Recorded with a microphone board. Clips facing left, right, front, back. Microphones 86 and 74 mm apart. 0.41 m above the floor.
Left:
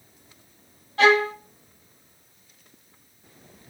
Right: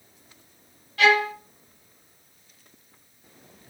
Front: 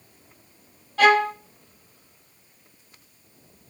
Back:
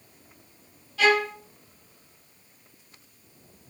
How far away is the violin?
About 0.7 m.